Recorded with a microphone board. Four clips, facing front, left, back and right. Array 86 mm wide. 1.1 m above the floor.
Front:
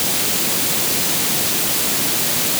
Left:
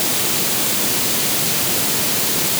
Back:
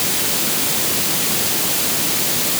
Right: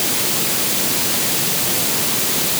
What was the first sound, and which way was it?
Only background noise.